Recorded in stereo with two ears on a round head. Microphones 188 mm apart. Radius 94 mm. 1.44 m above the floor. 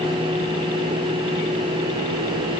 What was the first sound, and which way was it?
Only background noise.